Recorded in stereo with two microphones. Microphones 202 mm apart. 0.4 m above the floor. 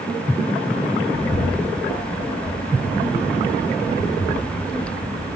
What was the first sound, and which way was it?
A bird, 60° left (ahead or behind).